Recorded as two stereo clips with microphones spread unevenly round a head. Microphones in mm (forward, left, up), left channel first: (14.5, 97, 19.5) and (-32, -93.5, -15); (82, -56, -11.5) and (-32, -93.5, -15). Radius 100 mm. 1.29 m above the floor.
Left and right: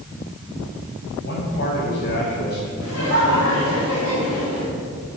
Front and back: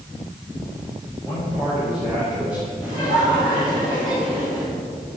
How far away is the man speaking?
About 6.5 m.